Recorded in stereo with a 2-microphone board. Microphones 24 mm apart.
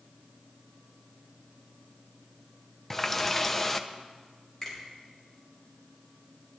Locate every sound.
2.9 s a running tap: 20° left (ahead or behind), 0.7 m
4.6 s a finger snap: 15° left (ahead or behind), 5.5 m